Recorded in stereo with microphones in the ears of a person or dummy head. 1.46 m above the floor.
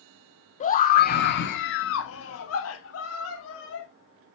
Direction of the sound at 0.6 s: 40° left (ahead or behind).